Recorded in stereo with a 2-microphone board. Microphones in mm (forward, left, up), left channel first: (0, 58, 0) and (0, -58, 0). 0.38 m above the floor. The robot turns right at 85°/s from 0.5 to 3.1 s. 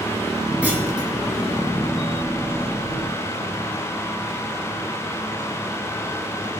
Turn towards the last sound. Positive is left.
turn(degrees=40)